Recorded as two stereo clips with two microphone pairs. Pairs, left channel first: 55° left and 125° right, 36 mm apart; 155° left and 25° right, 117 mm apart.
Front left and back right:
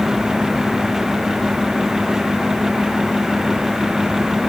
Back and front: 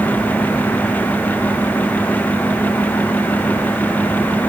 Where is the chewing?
I don't hear chewing.